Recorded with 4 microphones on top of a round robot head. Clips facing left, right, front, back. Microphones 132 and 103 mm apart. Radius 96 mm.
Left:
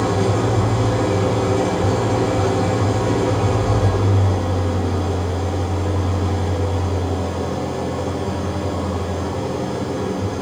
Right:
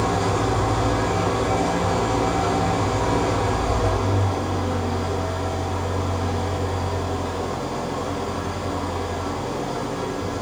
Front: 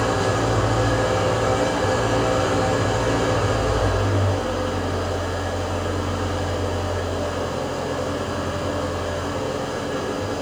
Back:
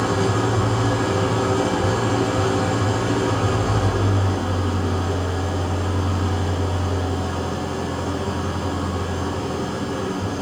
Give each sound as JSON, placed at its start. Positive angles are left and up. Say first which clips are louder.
{"t": 0.0, "sound": "an engine running", "louder": "left 3 dB, even", "azimuth_deg": 115, "distance_m": 5.5}